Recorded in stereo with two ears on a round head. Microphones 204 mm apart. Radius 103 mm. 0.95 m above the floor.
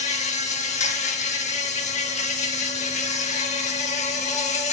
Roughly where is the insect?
Left.